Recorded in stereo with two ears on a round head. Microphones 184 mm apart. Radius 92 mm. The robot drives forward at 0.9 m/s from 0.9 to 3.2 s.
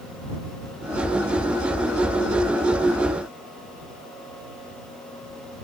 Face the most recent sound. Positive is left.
No sound to turn to.